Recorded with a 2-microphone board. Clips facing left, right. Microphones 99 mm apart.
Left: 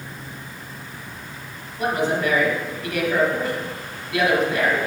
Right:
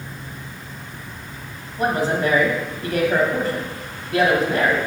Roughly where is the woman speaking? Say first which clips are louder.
Right 2 dB; right.